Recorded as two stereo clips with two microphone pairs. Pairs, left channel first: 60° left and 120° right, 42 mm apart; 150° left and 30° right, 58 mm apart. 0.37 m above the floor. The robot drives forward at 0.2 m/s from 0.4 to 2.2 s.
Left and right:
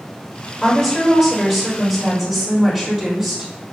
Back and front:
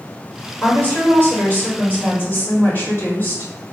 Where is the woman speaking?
155° left, 1.5 m; by 3.7 s 160° left, 1.7 m.